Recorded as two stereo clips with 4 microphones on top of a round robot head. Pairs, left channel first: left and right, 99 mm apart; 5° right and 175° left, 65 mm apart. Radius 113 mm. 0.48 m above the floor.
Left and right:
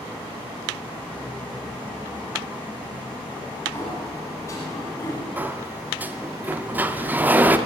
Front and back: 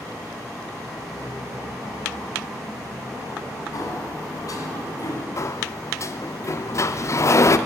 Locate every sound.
3.7 s a sliding door: 25° left, 2 m
5.4 s a sliding door: 25° right, 0.7 m